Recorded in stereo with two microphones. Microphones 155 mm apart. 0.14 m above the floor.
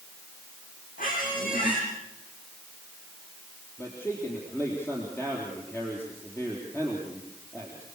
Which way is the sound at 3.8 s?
15° left (ahead or behind).